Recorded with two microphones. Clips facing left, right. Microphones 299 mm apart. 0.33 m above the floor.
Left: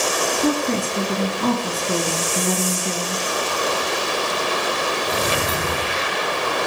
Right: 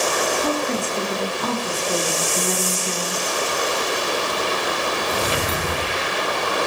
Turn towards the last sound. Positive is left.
turn(degrees=70)  # may be behind; listen again after turning